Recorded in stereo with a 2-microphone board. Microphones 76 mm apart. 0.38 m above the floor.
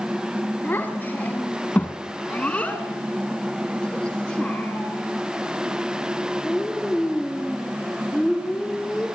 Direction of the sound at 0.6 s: 25° left (ahead or behind).